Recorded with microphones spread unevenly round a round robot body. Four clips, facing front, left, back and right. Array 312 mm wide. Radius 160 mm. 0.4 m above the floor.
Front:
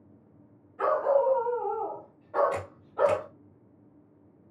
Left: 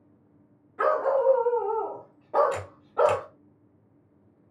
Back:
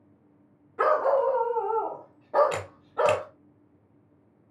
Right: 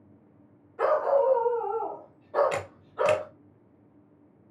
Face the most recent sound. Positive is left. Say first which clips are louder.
# left 3 dB, back 2 dB
turn(degrees=-150)